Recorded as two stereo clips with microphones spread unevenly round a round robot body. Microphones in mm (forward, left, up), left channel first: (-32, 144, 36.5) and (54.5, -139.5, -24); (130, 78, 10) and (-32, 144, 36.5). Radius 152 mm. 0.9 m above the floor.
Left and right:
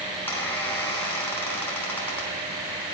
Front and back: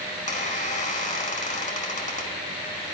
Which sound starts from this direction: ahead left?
A squeak, at 0.1 s.